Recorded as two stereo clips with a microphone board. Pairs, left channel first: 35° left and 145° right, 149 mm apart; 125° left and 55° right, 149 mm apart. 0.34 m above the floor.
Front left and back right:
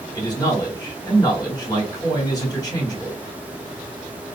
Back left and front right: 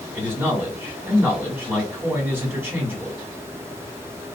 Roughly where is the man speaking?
Ahead.